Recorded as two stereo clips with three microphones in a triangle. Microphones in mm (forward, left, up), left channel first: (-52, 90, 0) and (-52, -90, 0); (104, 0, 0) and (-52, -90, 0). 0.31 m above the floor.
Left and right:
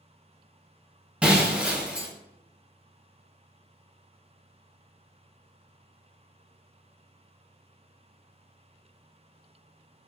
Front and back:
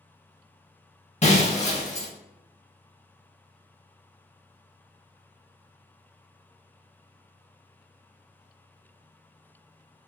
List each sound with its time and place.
1.2 s breaking glass: 10° right, 0.6 m